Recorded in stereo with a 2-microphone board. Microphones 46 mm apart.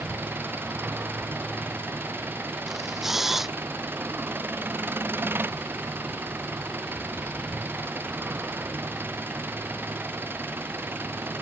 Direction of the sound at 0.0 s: 45° right (ahead or behind).